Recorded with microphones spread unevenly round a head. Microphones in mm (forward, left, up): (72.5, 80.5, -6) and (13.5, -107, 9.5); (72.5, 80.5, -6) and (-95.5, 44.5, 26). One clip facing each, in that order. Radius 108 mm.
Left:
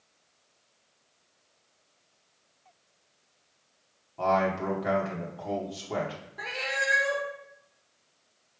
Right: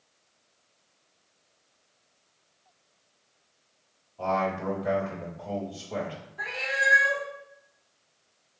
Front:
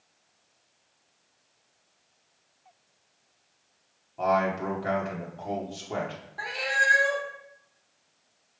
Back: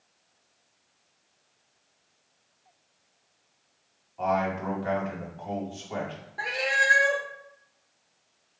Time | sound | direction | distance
4.2 | a man speaking | 60° left | 2 m
6.4 | a cat meowing | 130° left | 0.9 m